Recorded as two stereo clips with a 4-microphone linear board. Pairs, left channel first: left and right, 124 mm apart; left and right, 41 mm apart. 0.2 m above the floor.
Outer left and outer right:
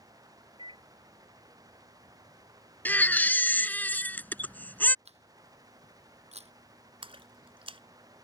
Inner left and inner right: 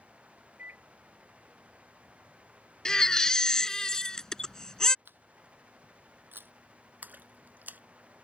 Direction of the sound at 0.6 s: 45° right (ahead or behind).